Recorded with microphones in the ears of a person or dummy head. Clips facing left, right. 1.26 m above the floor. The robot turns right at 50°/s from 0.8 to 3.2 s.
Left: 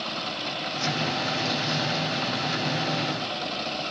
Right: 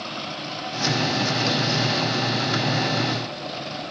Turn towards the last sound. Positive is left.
No sound to turn to.